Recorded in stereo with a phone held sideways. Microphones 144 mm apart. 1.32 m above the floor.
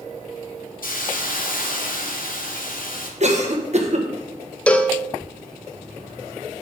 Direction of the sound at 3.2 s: 50° right (ahead or behind).